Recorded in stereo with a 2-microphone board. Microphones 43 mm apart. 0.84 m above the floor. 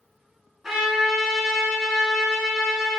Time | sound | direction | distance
0.6 | a trumpet | 5° right (ahead or behind) | 2.5 m